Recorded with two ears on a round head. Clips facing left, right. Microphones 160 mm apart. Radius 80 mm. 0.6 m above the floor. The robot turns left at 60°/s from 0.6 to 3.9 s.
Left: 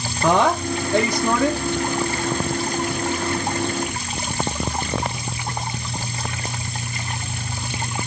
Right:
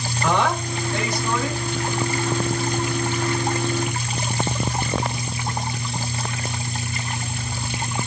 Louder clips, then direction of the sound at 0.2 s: Left 4 dB; 135° left.